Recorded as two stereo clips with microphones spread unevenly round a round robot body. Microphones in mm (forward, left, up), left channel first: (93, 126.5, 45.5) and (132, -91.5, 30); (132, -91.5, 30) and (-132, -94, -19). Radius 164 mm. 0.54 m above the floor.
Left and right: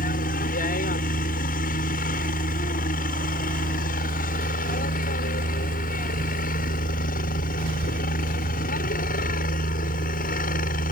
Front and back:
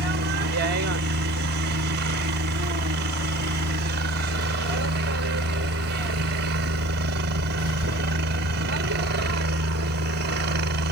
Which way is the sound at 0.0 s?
150° left.